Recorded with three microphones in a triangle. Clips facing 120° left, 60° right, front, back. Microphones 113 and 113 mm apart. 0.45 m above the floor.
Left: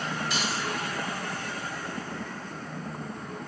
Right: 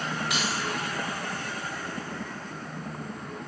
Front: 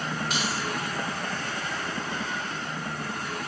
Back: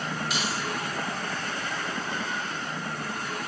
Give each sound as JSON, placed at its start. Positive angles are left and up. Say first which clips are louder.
{"t": 0.3, "sound": "keys jangling", "louder": "right 1 dB, front 1 dB", "azimuth_deg": -40, "distance_m": 3.5}